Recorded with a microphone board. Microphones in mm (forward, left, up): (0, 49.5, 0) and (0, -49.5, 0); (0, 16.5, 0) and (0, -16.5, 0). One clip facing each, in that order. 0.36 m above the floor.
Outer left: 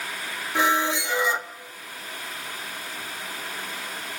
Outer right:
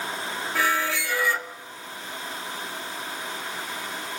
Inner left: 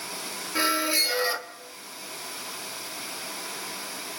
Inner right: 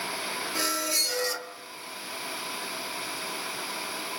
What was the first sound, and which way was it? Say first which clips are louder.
A squeak: outer left 3 dB, inner left 6 dB; 20° left (ahead or behind).